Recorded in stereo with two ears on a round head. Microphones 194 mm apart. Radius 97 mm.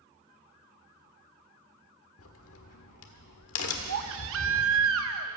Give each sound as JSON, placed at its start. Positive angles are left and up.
{"t": 2.2, "sound": "a crack", "side_deg": 75, "distance_m": 1.4}
{"t": 3.9, "sound": "a baby crying", "side_deg": -70, "distance_m": 0.8}